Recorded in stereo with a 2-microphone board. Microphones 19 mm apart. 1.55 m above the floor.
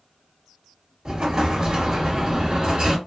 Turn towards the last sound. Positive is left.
turn(degrees=-35)  # may be behind; listen again after turning